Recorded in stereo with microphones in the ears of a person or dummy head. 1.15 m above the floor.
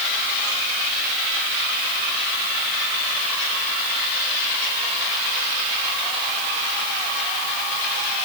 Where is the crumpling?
No crumpling in this recording.